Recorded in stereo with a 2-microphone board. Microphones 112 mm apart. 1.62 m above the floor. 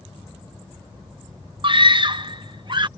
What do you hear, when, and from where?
1.6 s a scream: 50° right (ahead or behind); by 2.9 s 45° right (ahead or behind)